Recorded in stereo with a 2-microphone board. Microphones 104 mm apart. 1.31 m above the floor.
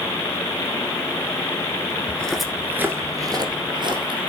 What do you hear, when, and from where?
2.1 s footsteps: 15° left (ahead or behind), 1.3 m; by 4.3 s 60° right (ahead or behind), 2.5 m